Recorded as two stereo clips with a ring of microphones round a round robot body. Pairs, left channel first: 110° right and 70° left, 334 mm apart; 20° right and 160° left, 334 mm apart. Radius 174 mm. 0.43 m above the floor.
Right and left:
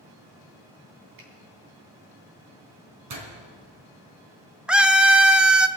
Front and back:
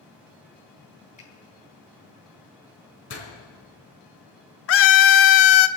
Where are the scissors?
I don't hear scissors.